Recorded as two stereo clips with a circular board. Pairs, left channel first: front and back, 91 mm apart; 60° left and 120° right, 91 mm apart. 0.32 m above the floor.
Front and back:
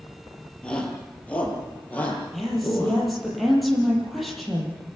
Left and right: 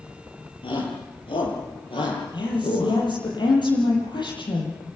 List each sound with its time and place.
0.6 s a shout: 75° left, 8 m; by 3.0 s 65° left, 10 m
2.3 s a woman speaking: 90° left, 9 m